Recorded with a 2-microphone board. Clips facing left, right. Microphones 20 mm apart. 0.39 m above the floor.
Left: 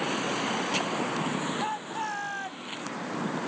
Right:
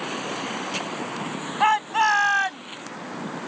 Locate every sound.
1.6 s a shout: 65° right (ahead or behind); by 2.7 s 50° right (ahead or behind)